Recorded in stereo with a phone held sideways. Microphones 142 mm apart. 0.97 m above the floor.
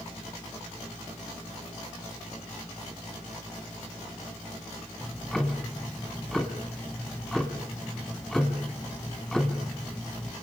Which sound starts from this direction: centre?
Ticking, at 5.0 s.